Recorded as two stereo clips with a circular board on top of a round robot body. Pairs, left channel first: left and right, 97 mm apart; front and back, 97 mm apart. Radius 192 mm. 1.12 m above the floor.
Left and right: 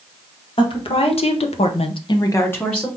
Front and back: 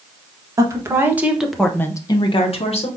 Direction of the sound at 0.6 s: 120° left.